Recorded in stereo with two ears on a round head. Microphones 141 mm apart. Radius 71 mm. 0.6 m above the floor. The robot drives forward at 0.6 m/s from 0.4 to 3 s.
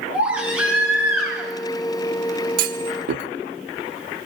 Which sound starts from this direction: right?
A clunk, at 2.6 s.